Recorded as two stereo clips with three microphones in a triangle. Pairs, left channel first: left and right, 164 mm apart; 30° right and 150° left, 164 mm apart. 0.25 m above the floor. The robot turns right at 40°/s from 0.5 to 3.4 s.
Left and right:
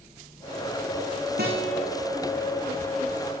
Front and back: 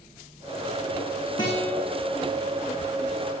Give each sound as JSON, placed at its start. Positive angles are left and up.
{"t": 1.4, "sound": "a guitar", "azimuth_deg": -95, "distance_m": 3.5}